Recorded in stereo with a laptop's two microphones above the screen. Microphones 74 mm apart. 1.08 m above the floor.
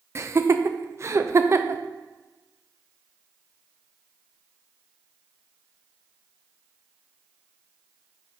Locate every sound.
0.1 s laughter: 40° right (ahead or behind), 0.5 m